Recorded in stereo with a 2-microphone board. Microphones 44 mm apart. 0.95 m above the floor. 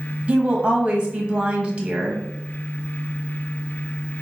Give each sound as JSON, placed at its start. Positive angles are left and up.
{"t": 0.3, "sound": "a woman speaking", "side_deg": -25, "distance_m": 1.1}